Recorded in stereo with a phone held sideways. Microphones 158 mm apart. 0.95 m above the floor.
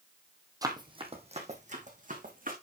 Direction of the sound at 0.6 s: 20° right (ahead or behind).